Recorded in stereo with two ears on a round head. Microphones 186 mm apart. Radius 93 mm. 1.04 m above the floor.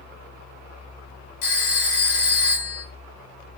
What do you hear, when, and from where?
1.4 s a phone ringing: 85° left, 3 m